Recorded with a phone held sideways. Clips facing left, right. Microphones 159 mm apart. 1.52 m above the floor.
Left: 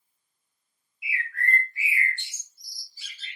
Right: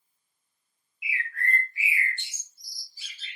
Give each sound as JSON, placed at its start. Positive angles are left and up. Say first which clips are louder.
{"t": 1.0, "sound": "a bird", "louder": "left 1 dB", "side_deg": -20, "distance_m": 1.3}